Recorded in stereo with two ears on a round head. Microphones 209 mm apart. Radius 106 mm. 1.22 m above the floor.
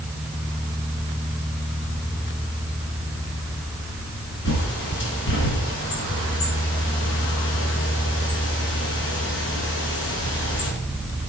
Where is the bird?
55° left (ahead or behind), 5 m.